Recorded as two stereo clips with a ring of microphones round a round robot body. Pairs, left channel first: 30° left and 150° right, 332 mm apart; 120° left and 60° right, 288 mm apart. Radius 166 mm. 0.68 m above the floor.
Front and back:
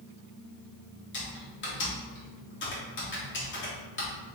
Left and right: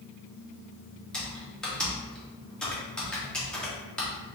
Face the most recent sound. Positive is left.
turn(degrees=35)